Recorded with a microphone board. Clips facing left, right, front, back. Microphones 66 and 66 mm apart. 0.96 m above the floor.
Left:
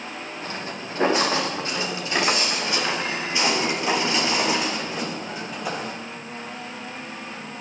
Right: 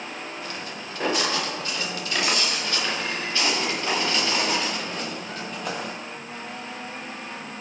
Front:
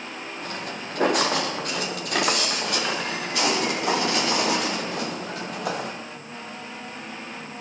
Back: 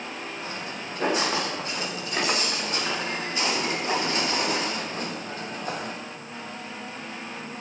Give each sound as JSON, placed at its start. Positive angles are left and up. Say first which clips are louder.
{"t": 0.4, "sound": "footsteps", "louder": "left 3 dB, front 1 dB", "azimuth_deg": 30, "distance_m": 8.0}